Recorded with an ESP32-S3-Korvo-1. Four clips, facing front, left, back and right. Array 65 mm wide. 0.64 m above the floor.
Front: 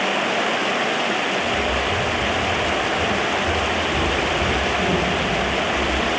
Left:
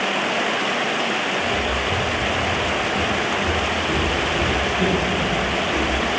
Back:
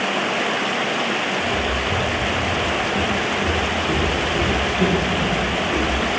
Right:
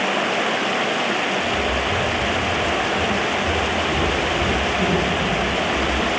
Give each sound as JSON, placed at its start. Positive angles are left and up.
{"t": 1.4, "sound": "footsteps", "azimuth_deg": 150, "distance_m": 8.5}